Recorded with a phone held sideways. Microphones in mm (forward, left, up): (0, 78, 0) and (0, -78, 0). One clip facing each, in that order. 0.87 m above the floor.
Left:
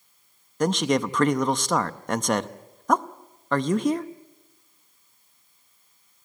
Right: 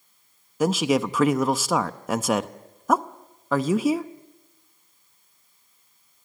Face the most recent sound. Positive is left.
turn(degrees=-5)  # may be behind; listen again after turning